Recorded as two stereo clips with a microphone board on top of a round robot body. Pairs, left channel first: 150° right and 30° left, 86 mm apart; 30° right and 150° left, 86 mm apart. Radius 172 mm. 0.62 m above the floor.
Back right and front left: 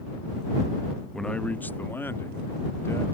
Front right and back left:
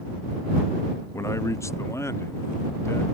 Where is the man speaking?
65° right; by 3.0 s 90° right.